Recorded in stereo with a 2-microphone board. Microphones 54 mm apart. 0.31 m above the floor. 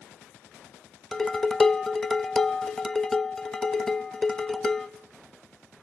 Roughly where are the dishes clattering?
Centre.